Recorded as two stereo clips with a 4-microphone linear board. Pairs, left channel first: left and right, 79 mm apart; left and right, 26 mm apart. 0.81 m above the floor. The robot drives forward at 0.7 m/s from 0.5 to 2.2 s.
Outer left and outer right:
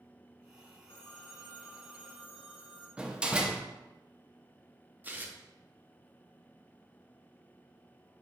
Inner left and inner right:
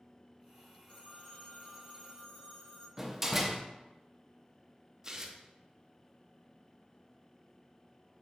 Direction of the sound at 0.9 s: 65° left (ahead or behind).